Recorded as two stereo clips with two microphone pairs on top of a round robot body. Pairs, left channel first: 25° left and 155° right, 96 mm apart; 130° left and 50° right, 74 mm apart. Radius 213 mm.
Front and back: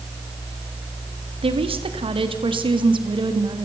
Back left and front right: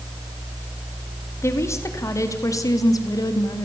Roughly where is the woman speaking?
Behind.